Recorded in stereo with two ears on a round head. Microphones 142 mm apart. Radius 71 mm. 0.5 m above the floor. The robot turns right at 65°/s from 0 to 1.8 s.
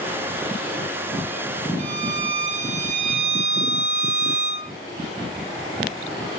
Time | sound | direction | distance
1.8 | a violin | 55° right (ahead or behind) | 4.5 m